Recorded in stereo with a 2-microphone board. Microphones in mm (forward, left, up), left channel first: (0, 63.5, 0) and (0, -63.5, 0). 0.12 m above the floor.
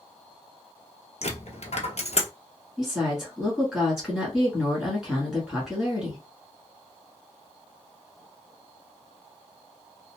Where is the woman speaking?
5° right (ahead or behind), 1.2 m.